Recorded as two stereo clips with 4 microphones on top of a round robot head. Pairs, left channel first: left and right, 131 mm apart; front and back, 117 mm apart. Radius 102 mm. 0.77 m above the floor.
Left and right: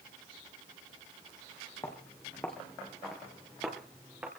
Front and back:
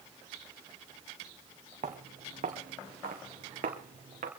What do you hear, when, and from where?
1.8 s footsteps: 165° left, 3 m; by 4.3 s 170° right, 4 m